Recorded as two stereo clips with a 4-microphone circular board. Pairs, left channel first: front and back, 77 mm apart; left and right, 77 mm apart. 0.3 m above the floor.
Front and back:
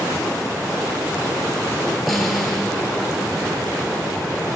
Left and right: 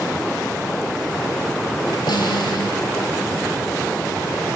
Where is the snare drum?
90° left, 4.5 m.